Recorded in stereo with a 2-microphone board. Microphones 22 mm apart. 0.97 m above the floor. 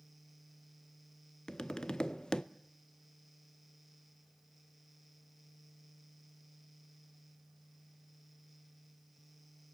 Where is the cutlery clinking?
No cutlery clinking in this recording.